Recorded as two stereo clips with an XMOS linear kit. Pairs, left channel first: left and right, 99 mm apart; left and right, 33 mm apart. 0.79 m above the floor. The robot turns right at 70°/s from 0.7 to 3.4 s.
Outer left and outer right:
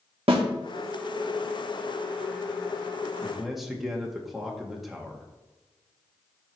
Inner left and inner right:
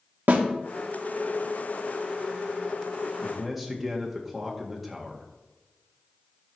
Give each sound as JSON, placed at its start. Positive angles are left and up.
{"t": 0.3, "sound": "a snare drum", "side_deg": -70, "distance_m": 1.2}
{"t": 3.2, "sound": "a man speaking", "side_deg": -10, "distance_m": 1.5}